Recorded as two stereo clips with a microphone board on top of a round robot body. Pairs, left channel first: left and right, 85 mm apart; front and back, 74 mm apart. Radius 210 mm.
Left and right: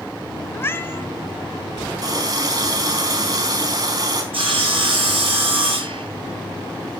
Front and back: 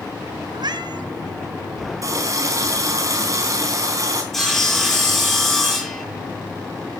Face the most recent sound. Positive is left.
turn(degrees=-90)